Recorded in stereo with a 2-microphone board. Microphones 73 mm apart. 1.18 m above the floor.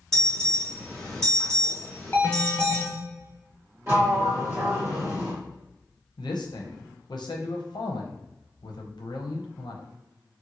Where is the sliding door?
25° right (ahead or behind), 1.5 m.